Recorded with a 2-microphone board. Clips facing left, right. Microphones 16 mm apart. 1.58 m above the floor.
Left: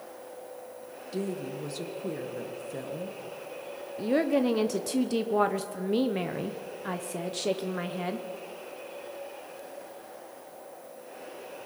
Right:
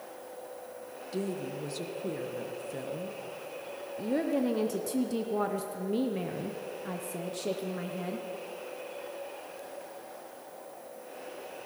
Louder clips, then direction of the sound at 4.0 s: Left 4 dB; 25° left (ahead or behind).